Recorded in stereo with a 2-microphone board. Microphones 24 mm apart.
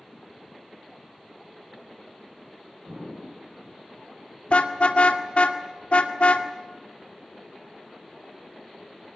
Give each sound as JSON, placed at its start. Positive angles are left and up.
{"t": 2.9, "sound": "an explosion", "side_deg": -45, "distance_m": 9.0}
{"t": 4.5, "sound": "a car horn", "side_deg": 45, "distance_m": 2.0}